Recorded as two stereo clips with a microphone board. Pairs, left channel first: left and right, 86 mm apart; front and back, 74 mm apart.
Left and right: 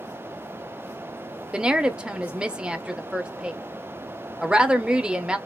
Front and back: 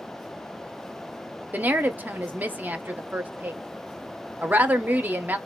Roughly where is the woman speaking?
Behind right.